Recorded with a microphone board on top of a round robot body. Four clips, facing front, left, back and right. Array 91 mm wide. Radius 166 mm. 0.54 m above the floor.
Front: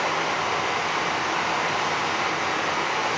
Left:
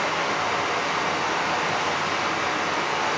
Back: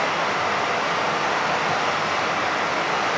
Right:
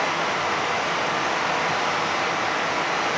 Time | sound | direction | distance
0.0 | running water | 155° right | 0.8 m